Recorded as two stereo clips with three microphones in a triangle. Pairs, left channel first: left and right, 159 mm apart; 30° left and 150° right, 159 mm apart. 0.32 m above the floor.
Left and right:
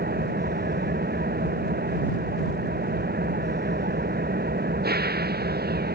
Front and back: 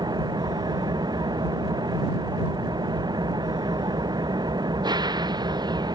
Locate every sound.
0.0 s an engine running: 85° right